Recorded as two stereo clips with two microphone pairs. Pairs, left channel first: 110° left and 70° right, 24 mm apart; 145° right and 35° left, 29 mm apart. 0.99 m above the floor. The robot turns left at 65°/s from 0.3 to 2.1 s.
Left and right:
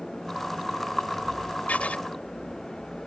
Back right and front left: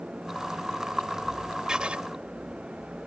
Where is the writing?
100° left; by 2.0 s 80° left.